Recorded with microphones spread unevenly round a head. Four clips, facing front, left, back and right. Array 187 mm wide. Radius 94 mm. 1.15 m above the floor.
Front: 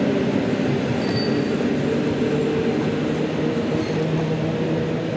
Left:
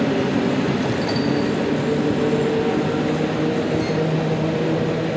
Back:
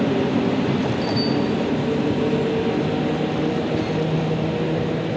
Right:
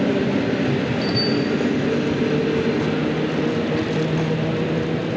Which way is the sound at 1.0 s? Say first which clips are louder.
Left 1 dB, even; 20° right.